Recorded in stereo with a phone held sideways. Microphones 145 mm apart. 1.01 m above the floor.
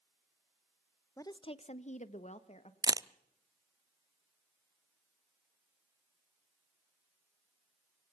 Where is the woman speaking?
20° left (ahead or behind), 0.7 m; by 2.7 s 50° left (ahead or behind), 1.5 m.